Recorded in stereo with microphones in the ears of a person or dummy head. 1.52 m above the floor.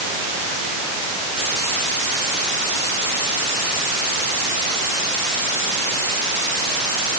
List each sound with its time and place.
Only background noise.